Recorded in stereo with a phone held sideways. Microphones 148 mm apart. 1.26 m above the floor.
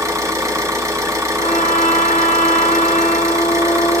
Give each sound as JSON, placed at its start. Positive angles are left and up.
{"t": 0.0, "sound": "an engine running", "side_deg": -20, "distance_m": 1.2}
{"t": 1.4, "sound": "a trumpet", "side_deg": 75, "distance_m": 2.5}